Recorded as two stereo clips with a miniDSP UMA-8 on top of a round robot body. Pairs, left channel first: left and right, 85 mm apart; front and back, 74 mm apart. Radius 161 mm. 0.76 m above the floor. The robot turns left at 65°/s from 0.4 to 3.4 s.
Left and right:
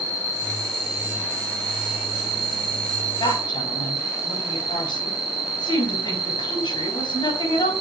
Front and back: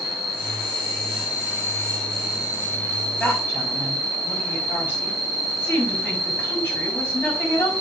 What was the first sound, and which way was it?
An insect, 30° left.